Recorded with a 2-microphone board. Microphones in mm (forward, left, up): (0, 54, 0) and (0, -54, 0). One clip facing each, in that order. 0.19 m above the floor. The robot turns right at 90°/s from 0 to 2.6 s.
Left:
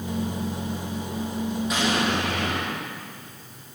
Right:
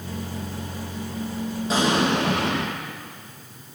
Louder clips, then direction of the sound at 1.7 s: Right 5 dB; 150° right.